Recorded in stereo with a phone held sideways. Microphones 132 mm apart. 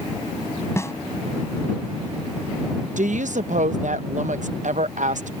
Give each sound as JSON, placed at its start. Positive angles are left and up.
{"t": 0.8, "sound": "a snare drum", "side_deg": 20}
{"t": 3.0, "sound": "a woman speaking", "side_deg": -85}